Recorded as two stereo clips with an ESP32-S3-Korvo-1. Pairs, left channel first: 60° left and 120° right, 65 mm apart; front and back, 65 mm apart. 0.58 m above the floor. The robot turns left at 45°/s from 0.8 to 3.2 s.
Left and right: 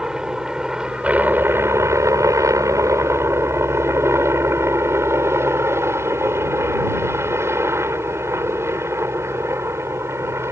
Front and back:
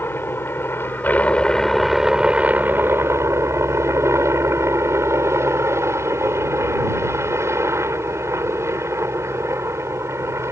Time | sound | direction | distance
0.0 | a helicopter | 45° right | ?